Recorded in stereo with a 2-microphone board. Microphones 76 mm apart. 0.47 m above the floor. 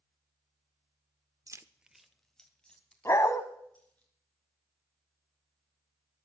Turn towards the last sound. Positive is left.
turn(degrees=40)  # may be behind; listen again after turning